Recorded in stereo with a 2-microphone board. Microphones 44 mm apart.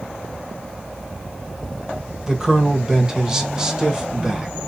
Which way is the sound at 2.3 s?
15° right (ahead or behind).